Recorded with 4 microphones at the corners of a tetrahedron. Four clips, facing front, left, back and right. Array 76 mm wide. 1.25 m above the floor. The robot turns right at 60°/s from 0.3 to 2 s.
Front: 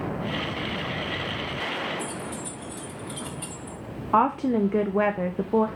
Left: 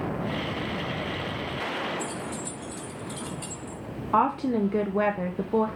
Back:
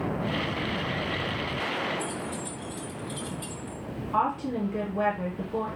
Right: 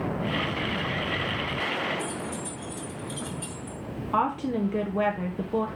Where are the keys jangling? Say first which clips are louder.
Even, even; 30° left, 2.5 m; by 3.8 s 35° left, 2.5 m.